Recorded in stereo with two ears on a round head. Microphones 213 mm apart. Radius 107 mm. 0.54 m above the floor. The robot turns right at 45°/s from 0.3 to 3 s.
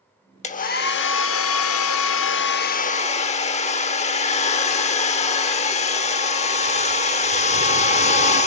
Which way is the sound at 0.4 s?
35° left.